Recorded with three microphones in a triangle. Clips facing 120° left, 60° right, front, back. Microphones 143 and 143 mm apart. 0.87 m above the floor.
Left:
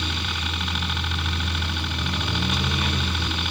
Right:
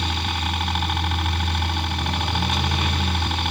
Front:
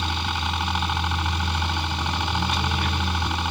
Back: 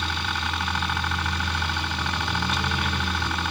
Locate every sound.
0.0 s a helicopter: 65° right